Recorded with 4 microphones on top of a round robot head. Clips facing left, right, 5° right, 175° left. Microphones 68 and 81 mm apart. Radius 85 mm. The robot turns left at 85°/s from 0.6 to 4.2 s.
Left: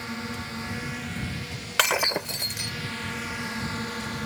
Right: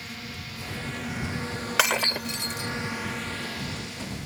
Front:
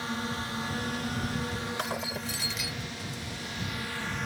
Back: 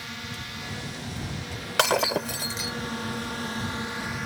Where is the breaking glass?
175° right; by 2.7 s 105° left.